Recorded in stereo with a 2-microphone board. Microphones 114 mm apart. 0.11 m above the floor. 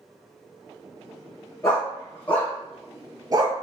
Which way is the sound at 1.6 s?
20° left (ahead or behind).